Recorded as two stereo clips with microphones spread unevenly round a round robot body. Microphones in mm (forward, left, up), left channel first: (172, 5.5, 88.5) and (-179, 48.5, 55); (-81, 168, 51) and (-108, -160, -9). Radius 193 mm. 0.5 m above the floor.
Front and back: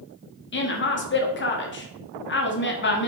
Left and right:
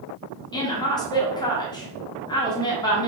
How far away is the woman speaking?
About 1.3 m.